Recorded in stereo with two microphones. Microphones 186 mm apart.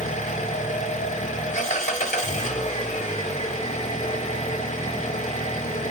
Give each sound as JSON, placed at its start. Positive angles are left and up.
{"t": 0.0, "sound": "an engine running", "side_deg": 40, "distance_m": 0.9}